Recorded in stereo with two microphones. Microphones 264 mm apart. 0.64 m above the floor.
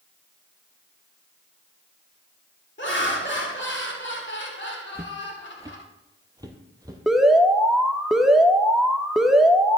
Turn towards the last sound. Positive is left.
turn(degrees=0)  # may be behind; listen again after turning